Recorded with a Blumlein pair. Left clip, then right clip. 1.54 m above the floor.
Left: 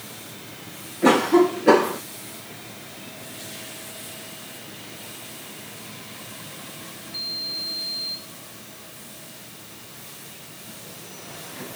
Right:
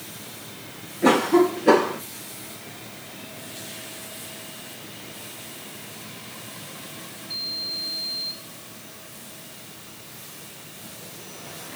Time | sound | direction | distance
1.0 | a cough | 5° left | ?